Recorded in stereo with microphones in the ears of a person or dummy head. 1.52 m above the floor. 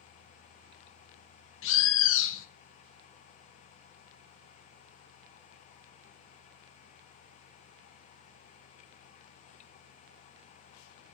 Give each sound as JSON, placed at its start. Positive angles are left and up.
{"t": 1.6, "sound": "a bird", "side_deg": 65, "distance_m": 0.7}